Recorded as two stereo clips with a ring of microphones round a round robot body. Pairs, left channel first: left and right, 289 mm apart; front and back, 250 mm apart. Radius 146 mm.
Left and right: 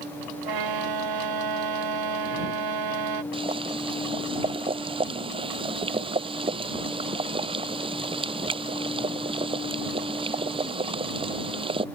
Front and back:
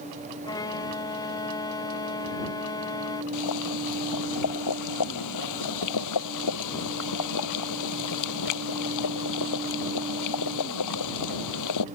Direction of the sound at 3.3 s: 15° right.